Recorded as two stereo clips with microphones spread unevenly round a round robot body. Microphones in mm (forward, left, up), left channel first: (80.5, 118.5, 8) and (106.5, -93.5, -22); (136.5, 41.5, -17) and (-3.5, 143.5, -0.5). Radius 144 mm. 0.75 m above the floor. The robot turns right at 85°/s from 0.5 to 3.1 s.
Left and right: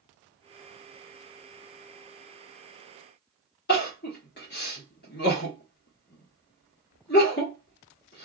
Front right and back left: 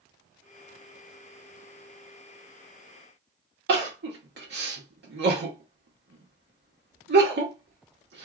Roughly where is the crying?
Behind left.